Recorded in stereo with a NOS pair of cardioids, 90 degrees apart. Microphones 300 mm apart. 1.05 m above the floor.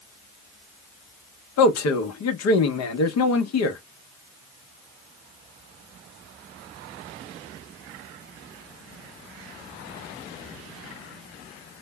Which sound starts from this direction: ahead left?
A man speaking, at 1.6 s.